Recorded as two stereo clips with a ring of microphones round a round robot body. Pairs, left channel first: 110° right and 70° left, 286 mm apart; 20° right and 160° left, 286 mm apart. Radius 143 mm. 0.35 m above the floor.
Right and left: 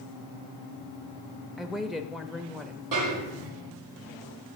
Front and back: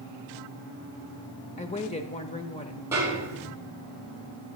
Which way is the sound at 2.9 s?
75° left.